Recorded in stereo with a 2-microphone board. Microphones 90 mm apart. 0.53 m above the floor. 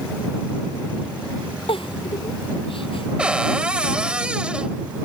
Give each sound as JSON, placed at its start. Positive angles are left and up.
{"t": 1.7, "sound": "a giggle", "side_deg": 85}
{"t": 3.2, "sound": "a cupboard door", "side_deg": -10}